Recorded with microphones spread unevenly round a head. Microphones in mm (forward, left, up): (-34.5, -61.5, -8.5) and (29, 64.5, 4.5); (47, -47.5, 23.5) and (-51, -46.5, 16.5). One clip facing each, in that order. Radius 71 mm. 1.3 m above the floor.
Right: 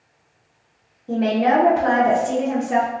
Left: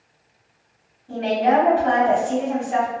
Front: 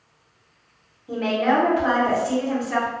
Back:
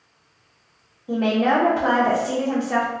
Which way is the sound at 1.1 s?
115° right.